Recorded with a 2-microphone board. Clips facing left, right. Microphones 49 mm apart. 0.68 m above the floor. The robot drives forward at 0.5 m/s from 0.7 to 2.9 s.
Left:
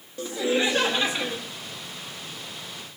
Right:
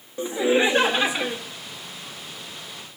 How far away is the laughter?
About 0.5 m.